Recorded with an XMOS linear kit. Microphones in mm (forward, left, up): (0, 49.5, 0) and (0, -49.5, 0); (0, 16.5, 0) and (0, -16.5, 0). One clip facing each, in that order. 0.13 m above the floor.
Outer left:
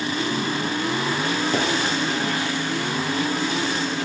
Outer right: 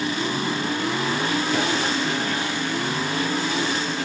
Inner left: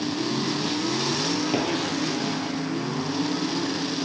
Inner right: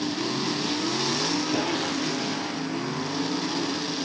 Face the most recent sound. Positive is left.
turn(degrees=40)  # may be behind; listen again after turning